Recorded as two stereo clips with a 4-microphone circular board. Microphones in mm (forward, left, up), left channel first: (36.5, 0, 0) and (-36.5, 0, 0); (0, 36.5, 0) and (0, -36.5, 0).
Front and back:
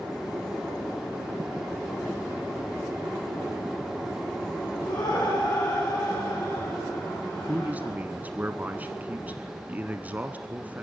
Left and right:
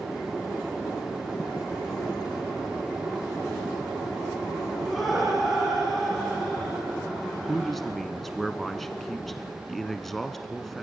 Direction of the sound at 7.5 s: 170° left.